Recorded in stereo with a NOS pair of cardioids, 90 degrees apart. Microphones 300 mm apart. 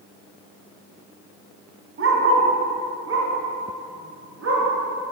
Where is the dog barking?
45° right, 4 m.